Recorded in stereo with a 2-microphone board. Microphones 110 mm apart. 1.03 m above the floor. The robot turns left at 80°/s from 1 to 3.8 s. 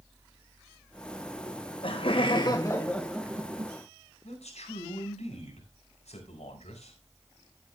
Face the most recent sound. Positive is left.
turn(degrees=85)